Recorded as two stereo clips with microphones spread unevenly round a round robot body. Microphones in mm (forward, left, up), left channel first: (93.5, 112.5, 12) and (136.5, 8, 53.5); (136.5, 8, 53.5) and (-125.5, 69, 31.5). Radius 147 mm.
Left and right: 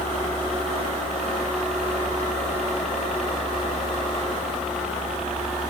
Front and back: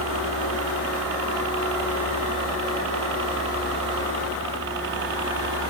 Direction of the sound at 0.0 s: 175° right.